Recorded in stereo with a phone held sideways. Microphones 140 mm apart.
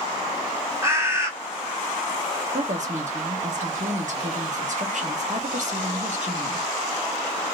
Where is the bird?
20° right (ahead or behind), 1.4 m.